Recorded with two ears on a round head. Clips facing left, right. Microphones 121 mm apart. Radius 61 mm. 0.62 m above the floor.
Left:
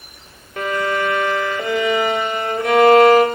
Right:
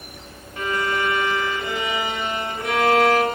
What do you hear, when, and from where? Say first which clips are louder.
0.6 s a violin: left 4 dB; 55° left (ahead or behind), 2.5 m